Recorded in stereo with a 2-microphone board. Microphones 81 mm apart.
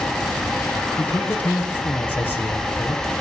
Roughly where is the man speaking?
Left.